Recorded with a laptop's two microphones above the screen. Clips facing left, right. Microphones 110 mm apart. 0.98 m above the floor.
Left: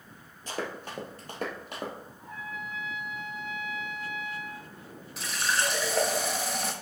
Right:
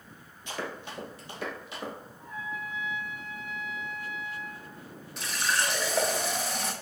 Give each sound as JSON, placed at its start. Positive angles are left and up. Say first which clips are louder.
{"t": 0.5, "sound": "running footsteps", "louder": "left 1 dB", "side_deg": 40, "distance_m": 1.2}
{"t": 2.2, "sound": "a trumpet", "louder": "right 3 dB", "side_deg": 70, "distance_m": 1.6}
{"t": 5.2, "sound": "a running tap", "louder": "even", "side_deg": 0, "distance_m": 0.7}